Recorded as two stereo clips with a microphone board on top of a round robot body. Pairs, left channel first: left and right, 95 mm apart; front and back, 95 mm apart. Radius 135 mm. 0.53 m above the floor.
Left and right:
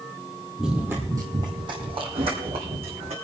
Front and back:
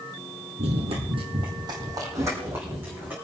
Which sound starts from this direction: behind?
Running footsteps, at 0.6 s.